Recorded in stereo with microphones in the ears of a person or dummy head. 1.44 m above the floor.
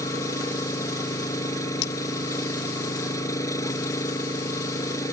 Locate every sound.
0.0 s an engine running: 20° left (ahead or behind)
1.8 s cutlery clinking: 60° left (ahead or behind)